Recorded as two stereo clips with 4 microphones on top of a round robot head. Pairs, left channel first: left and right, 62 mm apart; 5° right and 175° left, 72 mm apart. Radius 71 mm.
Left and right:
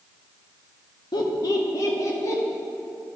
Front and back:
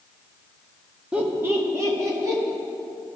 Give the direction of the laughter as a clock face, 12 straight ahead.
9 o'clock.